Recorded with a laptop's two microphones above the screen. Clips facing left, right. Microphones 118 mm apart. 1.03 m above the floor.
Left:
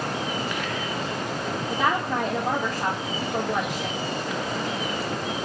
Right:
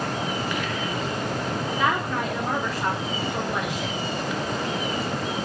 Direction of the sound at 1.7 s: 40° left (ahead or behind).